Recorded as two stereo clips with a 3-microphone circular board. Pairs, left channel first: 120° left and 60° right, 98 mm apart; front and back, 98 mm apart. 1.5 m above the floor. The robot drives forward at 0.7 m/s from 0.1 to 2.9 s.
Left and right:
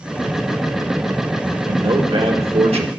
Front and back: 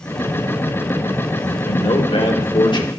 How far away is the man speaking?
About 1.5 m.